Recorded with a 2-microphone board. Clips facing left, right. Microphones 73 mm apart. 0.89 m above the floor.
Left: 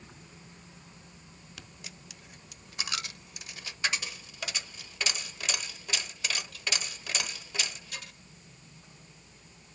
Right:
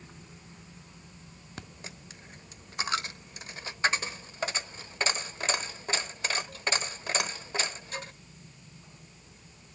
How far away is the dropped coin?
About 0.9 m.